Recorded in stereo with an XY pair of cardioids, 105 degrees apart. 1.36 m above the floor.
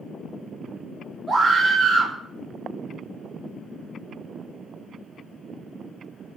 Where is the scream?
15° right, 3.5 m.